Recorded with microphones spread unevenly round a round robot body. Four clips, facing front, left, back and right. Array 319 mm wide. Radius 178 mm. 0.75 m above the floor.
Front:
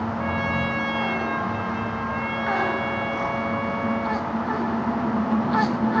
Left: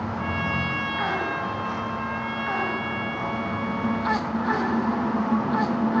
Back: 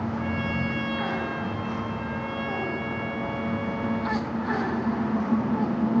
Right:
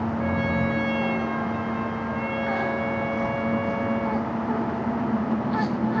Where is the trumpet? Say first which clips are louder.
Right 3 dB, front 3 dB; straight ahead, 6.5 m.